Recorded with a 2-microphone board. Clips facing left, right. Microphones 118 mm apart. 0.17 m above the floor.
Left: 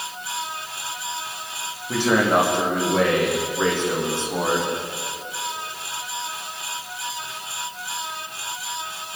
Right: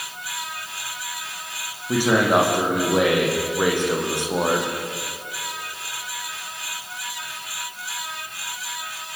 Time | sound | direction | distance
1.9 | a man speaking | 10° right (ahead or behind) | 9.5 m